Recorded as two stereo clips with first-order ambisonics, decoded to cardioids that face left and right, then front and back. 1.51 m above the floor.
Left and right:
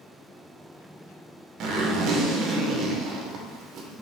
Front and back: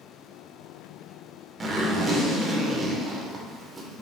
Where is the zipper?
115° right, 0.7 m.